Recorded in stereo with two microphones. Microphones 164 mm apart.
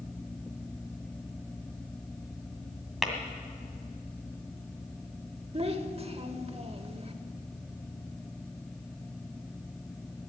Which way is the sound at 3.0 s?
Centre (ahead or behind).